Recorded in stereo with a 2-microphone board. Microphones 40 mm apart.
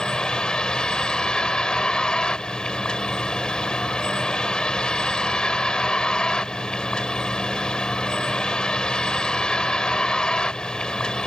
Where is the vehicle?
20° left (ahead or behind).